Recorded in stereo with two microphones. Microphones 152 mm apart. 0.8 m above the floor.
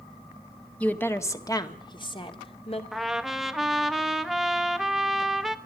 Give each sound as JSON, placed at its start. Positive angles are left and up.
{"t": 0.8, "sound": "a woman speaking", "side_deg": 10, "distance_m": 1.4}
{"t": 2.9, "sound": "a trumpet", "side_deg": 0, "distance_m": 1.0}